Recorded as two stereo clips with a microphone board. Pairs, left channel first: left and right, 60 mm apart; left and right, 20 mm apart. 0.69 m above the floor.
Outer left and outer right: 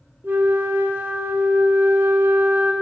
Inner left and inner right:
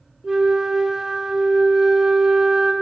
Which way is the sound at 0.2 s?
35° right (ahead or behind).